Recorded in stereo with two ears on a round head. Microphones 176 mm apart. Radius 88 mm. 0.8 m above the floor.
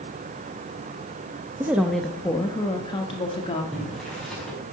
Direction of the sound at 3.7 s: Centre (ahead or behind).